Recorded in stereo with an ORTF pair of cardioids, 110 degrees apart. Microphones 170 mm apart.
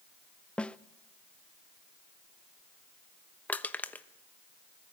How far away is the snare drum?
About 0.5 m.